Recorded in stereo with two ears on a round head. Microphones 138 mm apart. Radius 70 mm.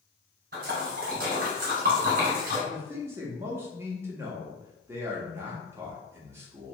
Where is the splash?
55° right (ahead or behind), 1.1 m.